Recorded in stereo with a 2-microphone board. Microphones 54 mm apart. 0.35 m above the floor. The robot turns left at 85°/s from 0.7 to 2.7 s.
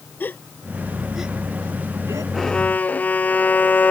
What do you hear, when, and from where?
0.2 s a gasp: 35° left (ahead or behind); by 2.2 s 80° right
2.3 s a violin: straight behind; by 3.9 s 150° left